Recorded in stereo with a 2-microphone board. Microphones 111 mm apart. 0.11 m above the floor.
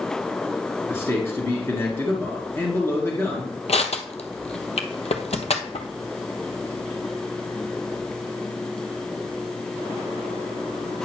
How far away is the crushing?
About 1.0 m.